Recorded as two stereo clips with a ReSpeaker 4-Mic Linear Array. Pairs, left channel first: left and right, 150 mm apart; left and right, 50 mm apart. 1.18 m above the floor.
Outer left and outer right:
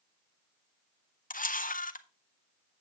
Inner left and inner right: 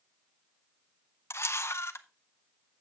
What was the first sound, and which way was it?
A camera shutter, 65° left (ahead or behind).